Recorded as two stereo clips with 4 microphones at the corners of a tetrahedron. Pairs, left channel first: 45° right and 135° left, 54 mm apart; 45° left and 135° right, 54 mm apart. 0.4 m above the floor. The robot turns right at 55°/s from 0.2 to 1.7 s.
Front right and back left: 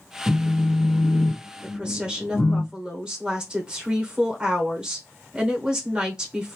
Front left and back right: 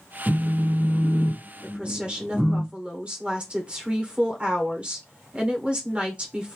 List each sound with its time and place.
0.3 s a phone buzzing: 165° right, 0.5 m; by 2.6 s 85° right, 0.5 m
1.6 s a woman speaking: straight behind, 0.9 m; by 6.6 s 175° right, 0.9 m